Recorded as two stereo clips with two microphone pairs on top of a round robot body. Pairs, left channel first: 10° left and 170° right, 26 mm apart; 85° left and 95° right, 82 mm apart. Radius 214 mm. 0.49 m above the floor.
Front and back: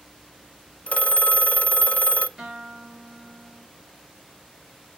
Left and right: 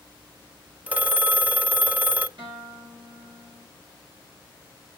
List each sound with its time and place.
0.9 s a phone ringing: 25° right, 0.8 m
2.4 s a guitar: 105° right, 5 m